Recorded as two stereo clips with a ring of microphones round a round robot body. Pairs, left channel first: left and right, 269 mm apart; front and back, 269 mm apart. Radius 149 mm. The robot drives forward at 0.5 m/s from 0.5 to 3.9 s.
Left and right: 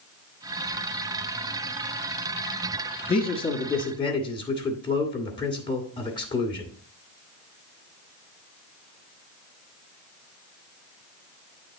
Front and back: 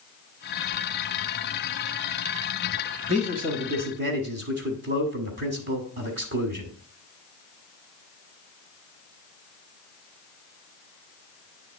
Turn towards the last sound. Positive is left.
turn(degrees=155)